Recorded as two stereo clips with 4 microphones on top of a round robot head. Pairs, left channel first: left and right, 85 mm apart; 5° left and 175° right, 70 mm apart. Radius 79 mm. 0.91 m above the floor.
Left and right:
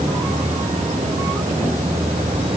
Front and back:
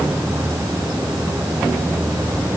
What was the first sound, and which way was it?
Only background noise.